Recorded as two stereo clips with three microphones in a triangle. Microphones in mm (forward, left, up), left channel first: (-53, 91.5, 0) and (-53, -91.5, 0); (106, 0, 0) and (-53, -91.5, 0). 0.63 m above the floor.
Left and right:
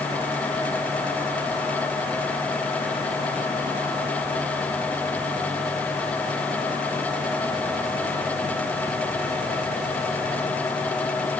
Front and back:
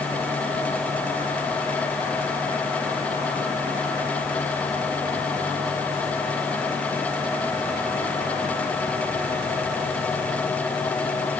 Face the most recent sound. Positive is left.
No sound to turn to.